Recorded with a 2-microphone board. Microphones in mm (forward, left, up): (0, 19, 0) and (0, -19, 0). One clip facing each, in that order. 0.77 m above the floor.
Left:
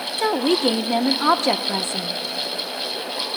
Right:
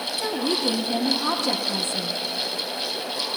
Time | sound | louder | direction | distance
0.2 | a woman speaking | left 7 dB | 50° left (ahead or behind) | 0.5 m